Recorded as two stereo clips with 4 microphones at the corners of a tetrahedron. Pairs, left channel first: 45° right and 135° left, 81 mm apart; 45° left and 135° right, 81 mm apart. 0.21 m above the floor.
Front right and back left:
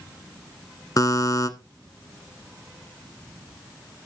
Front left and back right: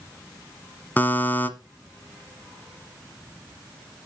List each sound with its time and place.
1.0 s a buzzer: 20° right, 1.2 m